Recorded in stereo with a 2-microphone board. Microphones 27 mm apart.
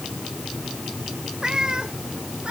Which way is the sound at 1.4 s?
30° right (ahead or behind).